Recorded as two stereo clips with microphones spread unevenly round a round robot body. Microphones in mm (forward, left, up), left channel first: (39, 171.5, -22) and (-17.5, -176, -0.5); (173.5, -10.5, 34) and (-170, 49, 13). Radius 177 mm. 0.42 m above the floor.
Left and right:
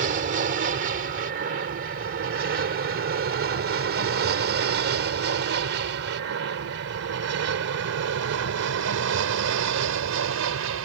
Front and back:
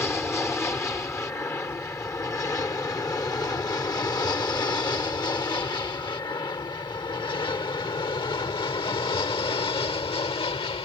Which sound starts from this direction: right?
An aircraft, at 0.0 s.